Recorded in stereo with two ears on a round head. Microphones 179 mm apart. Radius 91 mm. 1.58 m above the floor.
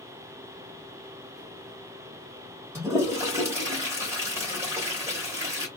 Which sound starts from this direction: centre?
A toilet flushing, at 2.8 s.